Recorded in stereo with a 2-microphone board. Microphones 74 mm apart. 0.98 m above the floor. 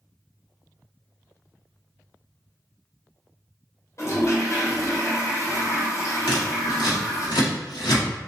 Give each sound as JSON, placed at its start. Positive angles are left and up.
{"t": 4.0, "sound": "a toilet flushing", "side_deg": 45, "distance_m": 0.9}
{"t": 6.3, "sound": "scissors", "side_deg": 75, "distance_m": 1.3}